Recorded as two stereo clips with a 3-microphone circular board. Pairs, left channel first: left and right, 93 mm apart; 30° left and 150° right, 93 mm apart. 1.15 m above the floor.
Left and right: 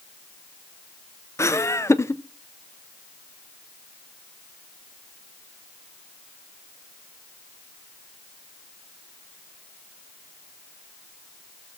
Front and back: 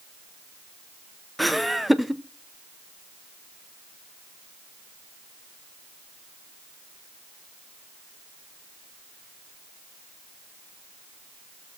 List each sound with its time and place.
1.4 s laughter: 120° left, 0.7 m